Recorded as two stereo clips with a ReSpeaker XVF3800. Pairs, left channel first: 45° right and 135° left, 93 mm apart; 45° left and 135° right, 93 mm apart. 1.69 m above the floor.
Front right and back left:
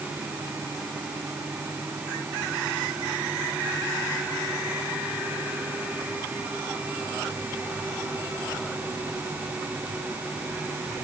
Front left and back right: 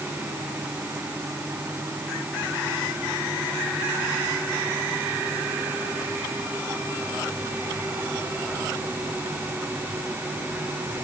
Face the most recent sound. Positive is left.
No sound to turn to.